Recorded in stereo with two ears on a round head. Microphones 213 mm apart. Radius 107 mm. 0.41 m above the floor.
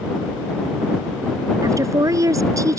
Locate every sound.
1.6 s a woman speaking: 15° right (ahead or behind)